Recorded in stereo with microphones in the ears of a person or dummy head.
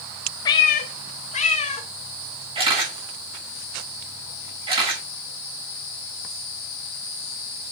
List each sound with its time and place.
0.5 s a cat meowing: 20° left (ahead or behind), 0.5 m; by 1.9 s 35° left (ahead or behind), 1.4 m
2.5 s a camera shutter: 35° right (ahead or behind), 8 m